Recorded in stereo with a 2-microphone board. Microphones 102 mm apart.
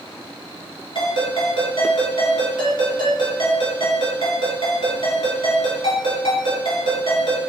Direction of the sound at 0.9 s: 55° left (ahead or behind).